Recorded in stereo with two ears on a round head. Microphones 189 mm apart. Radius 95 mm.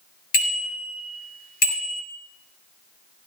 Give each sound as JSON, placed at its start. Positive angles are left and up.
{"t": 0.3, "sound": "a bicycle bell", "side_deg": 45, "distance_m": 5.0}